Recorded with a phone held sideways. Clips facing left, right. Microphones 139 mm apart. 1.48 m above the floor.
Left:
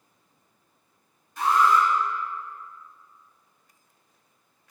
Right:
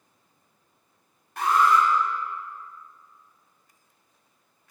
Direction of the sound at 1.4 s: 65° right (ahead or behind).